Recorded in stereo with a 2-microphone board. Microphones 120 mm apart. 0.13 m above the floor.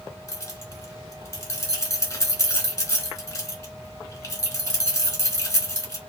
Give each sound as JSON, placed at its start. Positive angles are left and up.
{"t": 0.3, "sound": "keys jangling", "side_deg": 25, "distance_m": 0.8}